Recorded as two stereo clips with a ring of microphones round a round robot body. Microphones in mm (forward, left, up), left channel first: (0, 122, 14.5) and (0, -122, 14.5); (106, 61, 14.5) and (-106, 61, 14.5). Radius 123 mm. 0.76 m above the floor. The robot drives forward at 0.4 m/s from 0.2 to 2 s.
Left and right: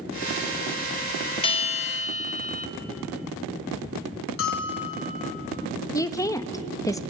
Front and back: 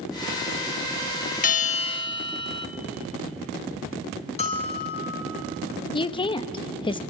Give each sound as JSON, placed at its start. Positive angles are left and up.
{"t": 1.4, "sound": "a bell", "azimuth_deg": 30, "distance_m": 0.7}
{"t": 4.4, "sound": "a bell", "azimuth_deg": 55, "distance_m": 3.5}
{"t": 5.9, "sound": "a woman speaking", "azimuth_deg": 30, "distance_m": 0.8}